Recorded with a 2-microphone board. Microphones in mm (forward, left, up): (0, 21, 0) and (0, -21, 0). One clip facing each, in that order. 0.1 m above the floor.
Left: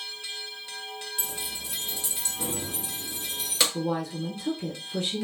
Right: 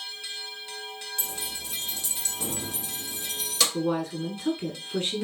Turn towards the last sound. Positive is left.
turn(degrees=-35)  # may be behind; listen again after turning